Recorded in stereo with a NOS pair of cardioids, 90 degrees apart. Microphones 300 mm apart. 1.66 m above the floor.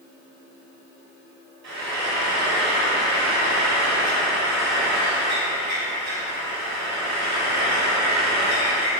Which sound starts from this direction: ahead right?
Frying, at 1.6 s.